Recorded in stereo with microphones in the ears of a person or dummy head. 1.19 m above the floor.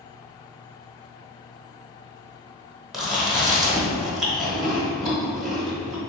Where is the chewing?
5° right (ahead or behind), 0.8 m.